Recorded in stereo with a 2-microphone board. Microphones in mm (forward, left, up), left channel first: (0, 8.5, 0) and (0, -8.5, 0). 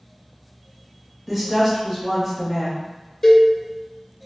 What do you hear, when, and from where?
1.3 s a woman speaking: centre (ahead or behind), 0.9 m
3.2 s a cowbell: 25° left (ahead or behind), 0.7 m